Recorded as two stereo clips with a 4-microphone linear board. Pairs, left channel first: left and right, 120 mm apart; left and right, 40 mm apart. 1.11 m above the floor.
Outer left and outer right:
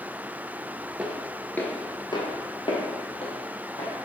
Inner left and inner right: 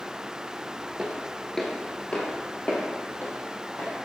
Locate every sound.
1.0 s footsteps: 10° right (ahead or behind), 1.1 m; by 3.9 s 60° left (ahead or behind), 2.5 m